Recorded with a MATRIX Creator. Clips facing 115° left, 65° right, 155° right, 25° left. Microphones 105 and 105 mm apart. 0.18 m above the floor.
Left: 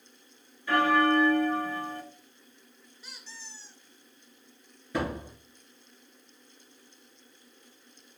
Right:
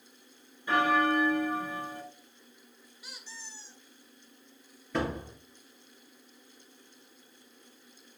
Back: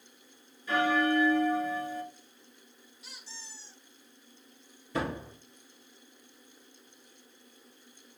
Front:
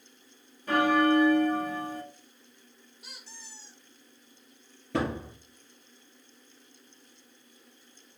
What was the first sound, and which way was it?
A bell, straight ahead.